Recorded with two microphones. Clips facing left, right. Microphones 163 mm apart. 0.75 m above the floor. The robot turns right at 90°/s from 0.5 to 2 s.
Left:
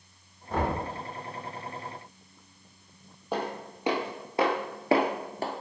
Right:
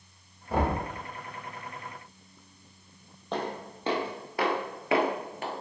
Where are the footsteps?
10° left (ahead or behind), 1.5 m; by 5.5 s 35° left (ahead or behind), 1.0 m.